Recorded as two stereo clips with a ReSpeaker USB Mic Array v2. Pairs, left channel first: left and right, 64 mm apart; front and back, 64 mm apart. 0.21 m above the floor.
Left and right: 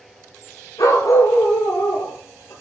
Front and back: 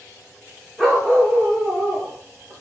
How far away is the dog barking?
About 9.5 m.